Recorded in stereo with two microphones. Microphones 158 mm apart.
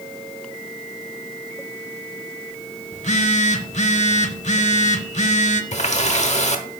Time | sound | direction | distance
2.9 | a phone buzzing | 45° left (ahead or behind) | 0.8 m
5.7 | a running tap | 45° left (ahead or behind) | 1.1 m